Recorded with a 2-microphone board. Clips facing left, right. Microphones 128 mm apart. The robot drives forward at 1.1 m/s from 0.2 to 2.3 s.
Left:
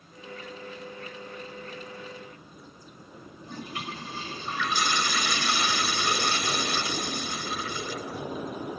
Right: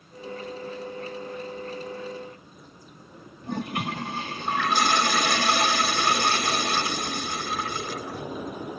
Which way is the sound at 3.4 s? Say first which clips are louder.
Right 8 dB; 55° right (ahead or behind).